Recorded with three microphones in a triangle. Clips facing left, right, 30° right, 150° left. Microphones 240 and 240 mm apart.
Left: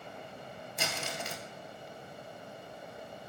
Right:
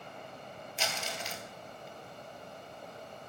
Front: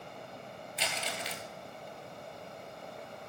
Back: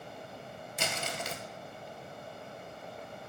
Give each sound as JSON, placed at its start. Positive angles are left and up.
{"t": 0.8, "sound": "crumpling", "azimuth_deg": 115, "distance_m": 0.9}